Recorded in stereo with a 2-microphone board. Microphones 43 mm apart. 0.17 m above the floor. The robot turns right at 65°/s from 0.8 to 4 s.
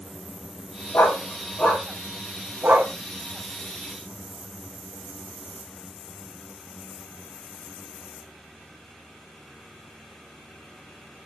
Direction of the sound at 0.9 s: 65° left (ahead or behind).